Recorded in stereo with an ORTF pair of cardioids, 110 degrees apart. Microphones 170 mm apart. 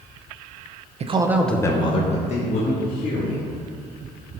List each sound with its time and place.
1.0 s a man speaking: 40° right, 0.7 m; by 3.4 s 55° left, 2.5 m